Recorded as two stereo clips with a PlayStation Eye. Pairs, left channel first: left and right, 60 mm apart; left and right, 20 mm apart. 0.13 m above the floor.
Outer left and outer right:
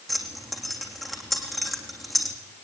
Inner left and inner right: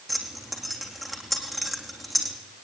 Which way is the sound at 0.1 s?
Centre (ahead or behind).